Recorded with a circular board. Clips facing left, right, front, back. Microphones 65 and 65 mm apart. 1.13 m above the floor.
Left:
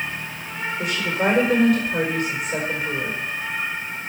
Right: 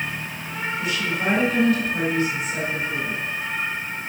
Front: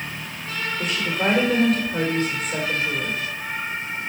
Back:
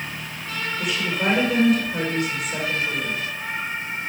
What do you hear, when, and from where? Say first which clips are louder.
0.8 s a woman speaking: left 3 dB, even; 50° left, 4.5 m